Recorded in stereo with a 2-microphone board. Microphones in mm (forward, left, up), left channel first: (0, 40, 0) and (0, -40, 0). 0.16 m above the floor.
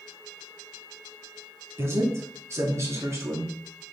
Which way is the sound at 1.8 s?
35° right (ahead or behind).